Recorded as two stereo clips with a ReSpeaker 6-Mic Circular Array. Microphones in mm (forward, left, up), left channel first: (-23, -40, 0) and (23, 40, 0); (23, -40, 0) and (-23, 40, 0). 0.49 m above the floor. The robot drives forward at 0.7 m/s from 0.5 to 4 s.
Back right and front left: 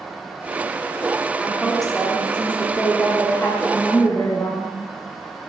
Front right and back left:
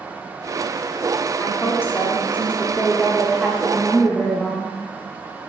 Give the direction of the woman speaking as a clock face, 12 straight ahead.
1 o'clock.